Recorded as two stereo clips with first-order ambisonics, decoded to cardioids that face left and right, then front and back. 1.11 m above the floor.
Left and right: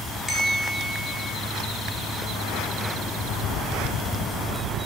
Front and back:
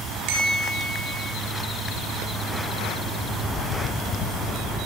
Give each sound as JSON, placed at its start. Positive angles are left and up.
{"t": 0.3, "sound": "a bell", "azimuth_deg": 175, "distance_m": 1.8}